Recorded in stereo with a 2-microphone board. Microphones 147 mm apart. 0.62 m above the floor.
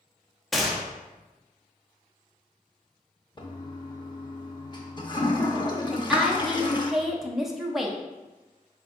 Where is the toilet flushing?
30° left (ahead or behind), 0.6 m.